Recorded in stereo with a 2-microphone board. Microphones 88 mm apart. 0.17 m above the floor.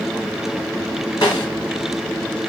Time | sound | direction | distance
1.2 | a snare drum | 45° left (ahead or behind) | 2 m